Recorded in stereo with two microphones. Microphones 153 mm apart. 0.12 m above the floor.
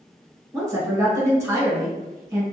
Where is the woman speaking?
20° right (ahead or behind), 1.1 m.